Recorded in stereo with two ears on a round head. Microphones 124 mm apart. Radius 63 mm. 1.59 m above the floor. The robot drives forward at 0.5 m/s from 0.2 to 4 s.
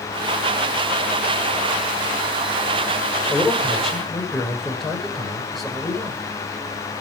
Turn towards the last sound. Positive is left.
turn(degrees=0)  # may be behind; listen again after turning